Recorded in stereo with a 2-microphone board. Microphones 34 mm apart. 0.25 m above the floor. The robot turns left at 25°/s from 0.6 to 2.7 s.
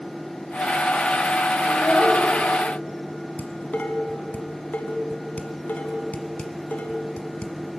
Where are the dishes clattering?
55° left (ahead or behind), 1.3 m.